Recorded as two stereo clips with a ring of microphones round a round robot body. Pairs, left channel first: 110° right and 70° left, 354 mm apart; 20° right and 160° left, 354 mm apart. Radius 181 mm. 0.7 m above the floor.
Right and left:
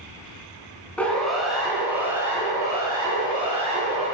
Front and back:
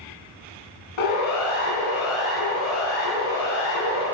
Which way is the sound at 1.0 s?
25° right.